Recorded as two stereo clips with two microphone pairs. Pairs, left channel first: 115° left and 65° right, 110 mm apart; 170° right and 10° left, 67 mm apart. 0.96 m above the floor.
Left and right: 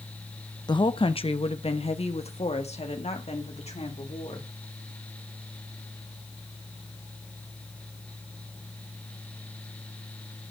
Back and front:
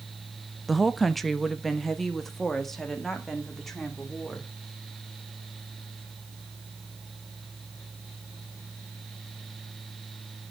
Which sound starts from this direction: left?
A woman speaking, at 0.7 s.